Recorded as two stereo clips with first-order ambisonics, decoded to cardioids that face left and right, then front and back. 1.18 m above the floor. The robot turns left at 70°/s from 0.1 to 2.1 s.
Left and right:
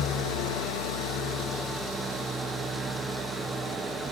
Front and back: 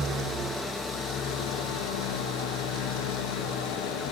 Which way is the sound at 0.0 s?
125° left.